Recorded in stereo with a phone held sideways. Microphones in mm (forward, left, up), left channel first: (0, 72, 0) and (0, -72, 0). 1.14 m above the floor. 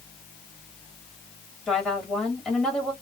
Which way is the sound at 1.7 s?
5° left (ahead or behind).